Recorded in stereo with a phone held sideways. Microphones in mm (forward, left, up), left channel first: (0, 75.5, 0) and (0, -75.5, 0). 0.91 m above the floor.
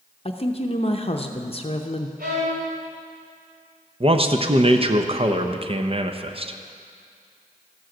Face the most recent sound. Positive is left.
turn(degrees=-40)  # may be behind; listen again after turning